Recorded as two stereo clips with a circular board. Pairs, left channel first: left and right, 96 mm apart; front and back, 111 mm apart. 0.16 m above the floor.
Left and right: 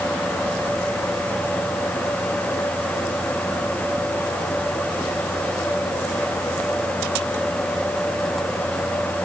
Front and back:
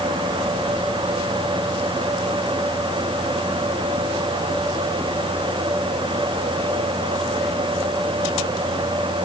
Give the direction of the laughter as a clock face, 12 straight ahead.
No laughter in this recording.